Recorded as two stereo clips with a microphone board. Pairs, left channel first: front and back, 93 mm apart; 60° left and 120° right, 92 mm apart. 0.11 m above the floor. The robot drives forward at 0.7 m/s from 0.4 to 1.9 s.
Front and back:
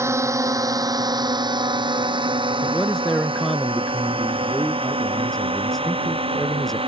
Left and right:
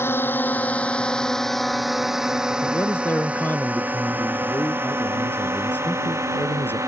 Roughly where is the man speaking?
Left.